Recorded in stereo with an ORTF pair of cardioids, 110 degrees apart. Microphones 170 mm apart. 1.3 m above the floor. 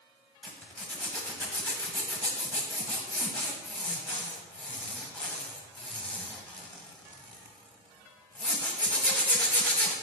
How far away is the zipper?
About 0.9 m.